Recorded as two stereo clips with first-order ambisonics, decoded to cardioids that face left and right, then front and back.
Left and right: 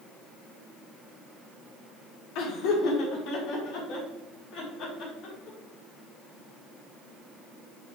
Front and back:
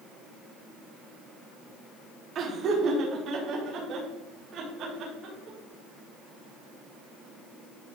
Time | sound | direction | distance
2.4 | laughter | 125° left | 1.3 m